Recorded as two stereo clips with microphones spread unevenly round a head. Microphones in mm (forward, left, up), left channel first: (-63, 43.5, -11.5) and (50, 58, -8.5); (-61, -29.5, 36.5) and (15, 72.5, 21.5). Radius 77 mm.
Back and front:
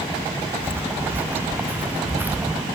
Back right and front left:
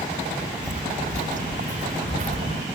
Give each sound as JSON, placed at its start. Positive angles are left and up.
{"t": 0.6, "sound": "footsteps", "azimuth_deg": 80}